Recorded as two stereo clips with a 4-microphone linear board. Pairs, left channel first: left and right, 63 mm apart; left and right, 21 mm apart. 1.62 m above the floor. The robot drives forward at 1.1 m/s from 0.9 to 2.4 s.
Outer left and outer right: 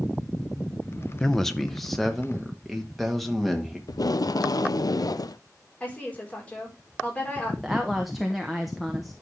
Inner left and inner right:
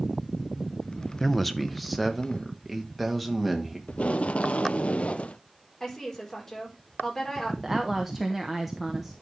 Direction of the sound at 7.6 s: Centre (ahead or behind).